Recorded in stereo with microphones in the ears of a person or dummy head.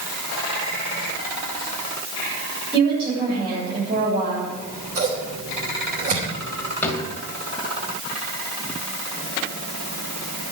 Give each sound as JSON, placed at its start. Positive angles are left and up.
{"t": 2.7, "sound": "a woman speaking", "side_deg": -30, "distance_m": 7.5}
{"t": 4.5, "sound": "scissors", "side_deg": -45, "distance_m": 3.0}
{"t": 6.8, "sound": "a drawer", "side_deg": 15, "distance_m": 2.5}